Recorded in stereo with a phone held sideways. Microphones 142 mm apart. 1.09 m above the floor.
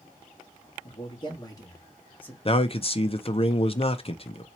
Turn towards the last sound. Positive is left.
turn(degrees=40)  # may be behind; listen again after turning